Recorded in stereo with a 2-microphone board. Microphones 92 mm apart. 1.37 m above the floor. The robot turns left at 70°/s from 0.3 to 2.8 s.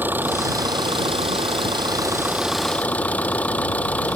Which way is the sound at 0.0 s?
20° right.